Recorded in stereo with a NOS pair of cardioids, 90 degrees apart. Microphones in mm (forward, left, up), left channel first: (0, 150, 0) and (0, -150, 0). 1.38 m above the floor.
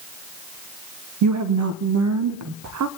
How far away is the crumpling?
No crumpling in this recording.